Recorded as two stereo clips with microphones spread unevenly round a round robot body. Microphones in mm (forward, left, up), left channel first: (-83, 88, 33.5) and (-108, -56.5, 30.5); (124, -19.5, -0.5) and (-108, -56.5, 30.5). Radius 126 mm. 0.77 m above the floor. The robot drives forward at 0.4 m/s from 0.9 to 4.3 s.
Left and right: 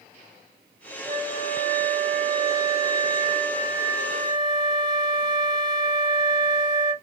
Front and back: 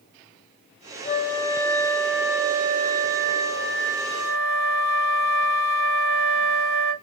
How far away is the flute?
About 0.7 m.